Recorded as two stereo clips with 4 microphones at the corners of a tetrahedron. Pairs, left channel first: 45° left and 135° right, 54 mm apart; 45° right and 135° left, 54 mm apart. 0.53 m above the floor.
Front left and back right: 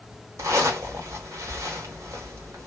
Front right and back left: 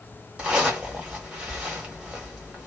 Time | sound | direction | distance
0.4 | a zipper | 155° right | 1.4 m